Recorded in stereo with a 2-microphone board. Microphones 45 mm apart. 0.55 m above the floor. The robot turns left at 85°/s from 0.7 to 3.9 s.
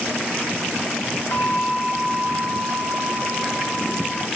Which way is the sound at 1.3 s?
65° left.